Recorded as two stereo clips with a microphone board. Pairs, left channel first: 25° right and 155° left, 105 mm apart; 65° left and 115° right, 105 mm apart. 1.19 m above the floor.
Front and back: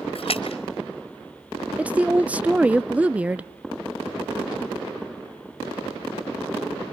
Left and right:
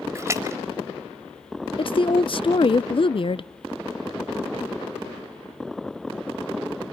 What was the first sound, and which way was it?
A splash, 45° right.